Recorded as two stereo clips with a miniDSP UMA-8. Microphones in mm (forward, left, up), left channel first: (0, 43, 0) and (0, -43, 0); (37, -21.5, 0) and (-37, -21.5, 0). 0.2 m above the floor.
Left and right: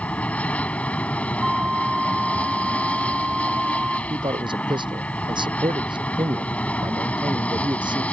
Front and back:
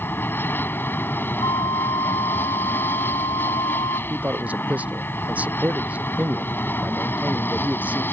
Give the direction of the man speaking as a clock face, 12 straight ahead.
4 o'clock.